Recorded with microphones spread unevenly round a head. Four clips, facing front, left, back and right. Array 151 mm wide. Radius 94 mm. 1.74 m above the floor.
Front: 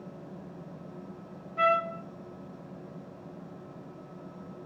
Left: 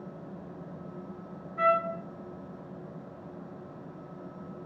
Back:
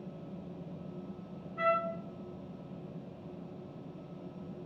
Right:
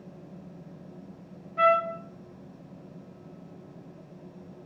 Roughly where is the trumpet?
Ahead.